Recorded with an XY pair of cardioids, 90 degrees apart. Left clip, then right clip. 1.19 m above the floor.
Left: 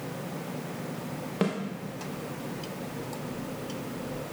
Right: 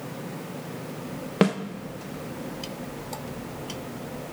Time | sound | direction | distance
1.4 | a snare drum | 60° right | 0.7 m